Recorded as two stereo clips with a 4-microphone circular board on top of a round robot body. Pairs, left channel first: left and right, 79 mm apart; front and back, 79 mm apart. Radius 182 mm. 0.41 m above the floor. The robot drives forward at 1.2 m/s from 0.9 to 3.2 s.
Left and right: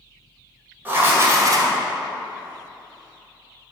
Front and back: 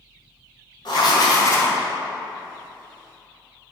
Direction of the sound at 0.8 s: 25° right.